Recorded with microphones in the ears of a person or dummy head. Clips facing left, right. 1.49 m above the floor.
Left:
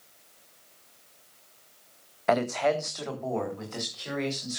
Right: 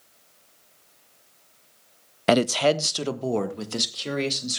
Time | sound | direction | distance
2.3 | a man speaking | 40° right (ahead or behind) | 0.5 m